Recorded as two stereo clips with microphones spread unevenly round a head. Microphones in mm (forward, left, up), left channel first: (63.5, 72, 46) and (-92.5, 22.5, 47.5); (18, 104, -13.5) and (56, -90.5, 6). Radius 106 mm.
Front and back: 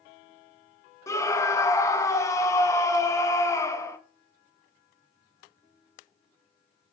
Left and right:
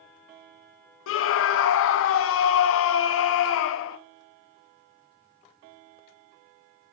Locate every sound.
1.1 s a scream: 90° left, 0.6 m